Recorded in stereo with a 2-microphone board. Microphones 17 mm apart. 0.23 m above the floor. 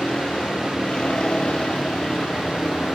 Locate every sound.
0.0 s a vehicle: 70° left (ahead or behind); by 2.9 s 80° left